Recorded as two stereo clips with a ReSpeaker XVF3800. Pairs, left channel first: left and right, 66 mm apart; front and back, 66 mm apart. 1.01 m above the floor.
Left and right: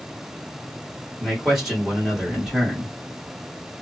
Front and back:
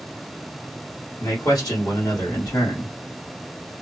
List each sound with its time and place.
1.2 s a man speaking: 5° right, 1.8 m